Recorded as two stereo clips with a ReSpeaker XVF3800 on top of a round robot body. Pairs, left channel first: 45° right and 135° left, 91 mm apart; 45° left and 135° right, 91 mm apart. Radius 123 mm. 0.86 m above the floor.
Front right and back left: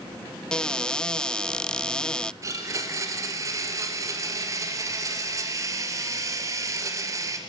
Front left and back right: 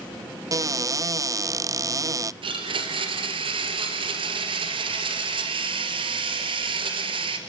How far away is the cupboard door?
About 0.7 m.